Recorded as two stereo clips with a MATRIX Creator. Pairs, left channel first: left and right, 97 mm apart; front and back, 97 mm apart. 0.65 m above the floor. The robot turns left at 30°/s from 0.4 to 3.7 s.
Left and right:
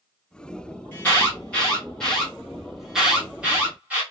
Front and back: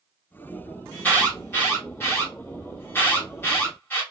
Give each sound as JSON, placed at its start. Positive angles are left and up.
{"t": 0.9, "sound": "an alarm", "azimuth_deg": 50, "distance_m": 1.7}